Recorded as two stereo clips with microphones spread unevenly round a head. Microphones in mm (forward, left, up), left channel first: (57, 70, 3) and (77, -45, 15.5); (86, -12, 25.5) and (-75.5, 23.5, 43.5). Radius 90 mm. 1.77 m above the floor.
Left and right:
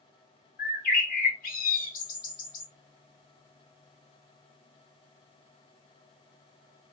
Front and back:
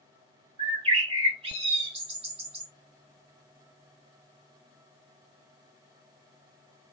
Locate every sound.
0.6 s a bird: 110° left, 1.6 m